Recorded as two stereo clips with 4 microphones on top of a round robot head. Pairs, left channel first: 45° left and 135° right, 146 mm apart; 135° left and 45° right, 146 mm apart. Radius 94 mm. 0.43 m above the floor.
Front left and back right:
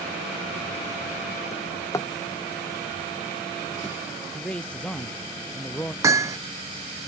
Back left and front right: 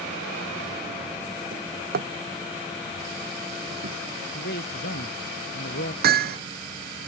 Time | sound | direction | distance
1.5 | a drawer | 25° right | ?
4.3 | a man speaking | 125° left | ?
6.0 | hammering | 65° right | ?